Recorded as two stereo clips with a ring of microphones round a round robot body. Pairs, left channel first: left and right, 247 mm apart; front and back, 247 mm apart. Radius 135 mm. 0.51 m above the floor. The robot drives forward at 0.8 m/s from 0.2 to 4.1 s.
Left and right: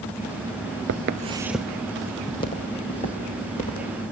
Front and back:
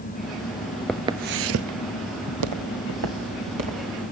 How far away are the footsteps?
About 0.6 m.